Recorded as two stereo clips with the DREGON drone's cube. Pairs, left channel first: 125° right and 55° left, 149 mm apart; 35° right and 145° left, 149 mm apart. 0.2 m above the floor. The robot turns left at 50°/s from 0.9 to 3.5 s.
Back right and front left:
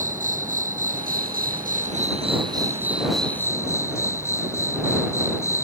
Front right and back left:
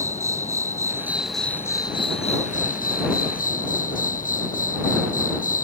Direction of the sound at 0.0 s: 75° left.